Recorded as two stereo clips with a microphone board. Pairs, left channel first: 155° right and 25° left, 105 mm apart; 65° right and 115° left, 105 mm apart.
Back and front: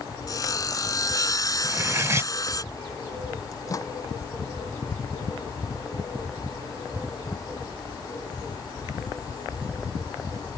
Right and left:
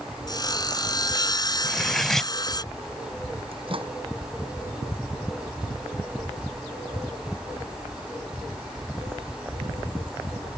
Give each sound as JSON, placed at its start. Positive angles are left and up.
{"t": 0.3, "sound": "sawing", "azimuth_deg": -110}
{"t": 1.6, "sound": "cutlery clinking", "azimuth_deg": 15}
{"t": 3.5, "sound": "a microwave", "azimuth_deg": 145}